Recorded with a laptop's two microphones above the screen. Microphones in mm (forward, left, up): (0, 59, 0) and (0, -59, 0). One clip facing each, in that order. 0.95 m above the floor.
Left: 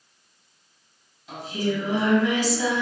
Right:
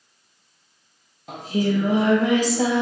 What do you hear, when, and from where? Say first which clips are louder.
1.3 s singing: right 4 dB; 45° right (ahead or behind), 1.3 m